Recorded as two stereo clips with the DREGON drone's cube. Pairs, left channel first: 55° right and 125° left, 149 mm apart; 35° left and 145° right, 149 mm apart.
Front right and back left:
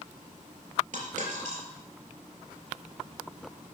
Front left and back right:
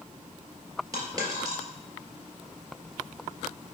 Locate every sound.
0.9 s a dropped coin: 150° left, 2.5 m